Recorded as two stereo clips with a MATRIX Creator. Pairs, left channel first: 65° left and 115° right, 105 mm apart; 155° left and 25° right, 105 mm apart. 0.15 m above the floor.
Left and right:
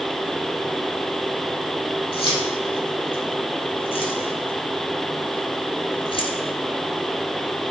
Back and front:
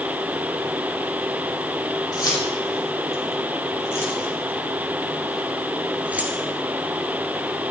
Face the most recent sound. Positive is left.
turn(degrees=45)